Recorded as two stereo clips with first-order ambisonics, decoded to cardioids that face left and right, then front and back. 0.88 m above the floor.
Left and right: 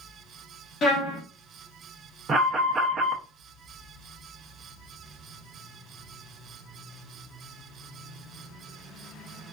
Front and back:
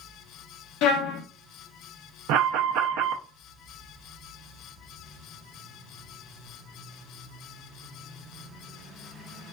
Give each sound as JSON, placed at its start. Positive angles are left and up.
{"t": 0.8, "sound": "a trumpet", "azimuth_deg": 25, "distance_m": 0.7}
{"t": 2.3, "sound": "an alarm", "azimuth_deg": -165, "distance_m": 0.5}